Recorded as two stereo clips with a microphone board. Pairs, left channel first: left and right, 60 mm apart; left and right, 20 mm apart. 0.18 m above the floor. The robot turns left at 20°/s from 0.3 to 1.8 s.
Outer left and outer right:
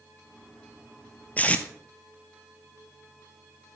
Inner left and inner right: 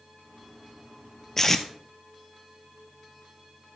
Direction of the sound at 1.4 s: 25° left (ahead or behind).